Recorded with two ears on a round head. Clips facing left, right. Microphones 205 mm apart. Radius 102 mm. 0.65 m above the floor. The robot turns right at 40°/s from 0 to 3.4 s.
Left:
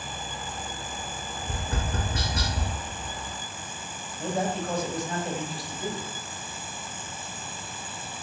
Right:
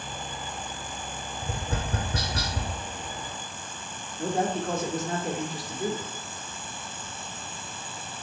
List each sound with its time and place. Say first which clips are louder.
1.4 s tapping: right 1 dB; 75° right (ahead or behind), 1.7 m; by 2.7 s 45° right (ahead or behind), 1.7 m
4.2 s a man speaking: right 2 dB; 40° right (ahead or behind), 1.1 m